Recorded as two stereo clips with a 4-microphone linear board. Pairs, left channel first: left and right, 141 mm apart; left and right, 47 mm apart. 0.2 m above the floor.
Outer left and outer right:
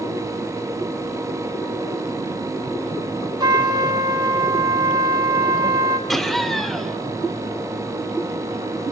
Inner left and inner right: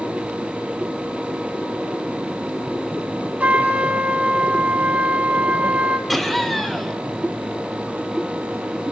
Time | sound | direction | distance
3.4 | a trumpet | 30° right (ahead or behind) | 1.3 m
6.1 | laughter | centre (ahead or behind) | 2 m